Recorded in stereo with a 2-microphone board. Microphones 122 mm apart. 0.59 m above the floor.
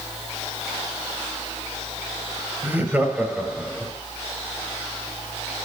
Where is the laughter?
15° right (ahead or behind), 3.5 m; by 3.9 s 5° left (ahead or behind), 2.5 m.